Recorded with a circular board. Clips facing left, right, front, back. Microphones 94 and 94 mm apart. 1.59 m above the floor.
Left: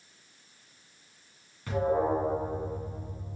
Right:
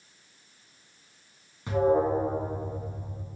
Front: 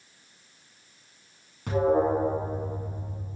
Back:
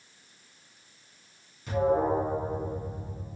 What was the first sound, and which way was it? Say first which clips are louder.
An alarm: right 3 dB, front 2 dB; 25° right.